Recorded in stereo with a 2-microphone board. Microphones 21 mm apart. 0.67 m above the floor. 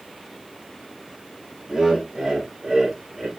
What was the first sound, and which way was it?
Laughter, 50° right (ahead or behind).